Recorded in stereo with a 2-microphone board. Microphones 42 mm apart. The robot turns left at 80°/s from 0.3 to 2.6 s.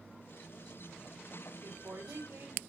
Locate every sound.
1.6 s a woman speaking: 60° right, 3.5 m; by 2.6 s 135° right, 3.5 m